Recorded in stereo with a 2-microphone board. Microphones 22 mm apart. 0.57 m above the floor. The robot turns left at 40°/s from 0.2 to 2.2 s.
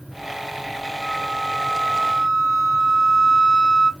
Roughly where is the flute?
Left.